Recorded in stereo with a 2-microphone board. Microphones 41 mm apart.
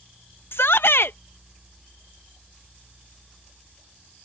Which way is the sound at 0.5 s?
70° left (ahead or behind).